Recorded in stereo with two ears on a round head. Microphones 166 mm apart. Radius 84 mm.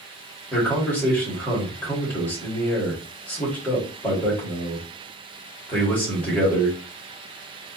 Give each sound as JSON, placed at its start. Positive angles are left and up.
{"t": 0.5, "sound": "a man speaking", "side_deg": 10, "distance_m": 2.0}